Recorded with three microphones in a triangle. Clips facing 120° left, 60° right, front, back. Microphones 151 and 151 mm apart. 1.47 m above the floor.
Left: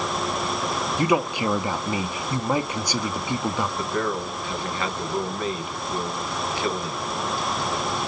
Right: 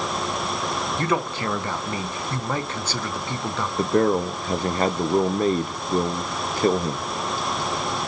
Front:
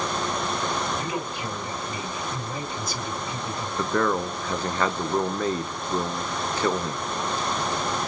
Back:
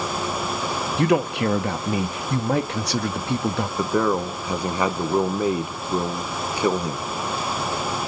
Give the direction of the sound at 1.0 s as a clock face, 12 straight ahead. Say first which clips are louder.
Left 4 dB, back 10 dB; 5 o'clock.